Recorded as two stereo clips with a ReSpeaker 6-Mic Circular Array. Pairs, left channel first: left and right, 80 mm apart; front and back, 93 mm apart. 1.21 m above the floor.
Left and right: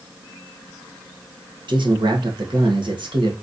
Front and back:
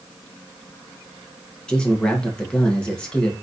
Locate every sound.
1.7 s a man speaking: 80° right, 1.4 m